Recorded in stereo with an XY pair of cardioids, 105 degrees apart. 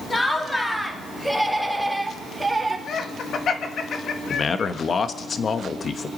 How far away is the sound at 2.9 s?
About 1.6 m.